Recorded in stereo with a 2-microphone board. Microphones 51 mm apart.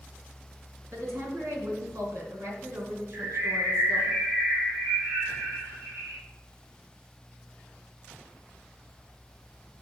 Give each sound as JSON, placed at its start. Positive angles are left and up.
{"t": 0.9, "sound": "a woman speaking", "side_deg": -60, "distance_m": 3.0}
{"t": 3.1, "sound": "a bird", "side_deg": -45, "distance_m": 4.5}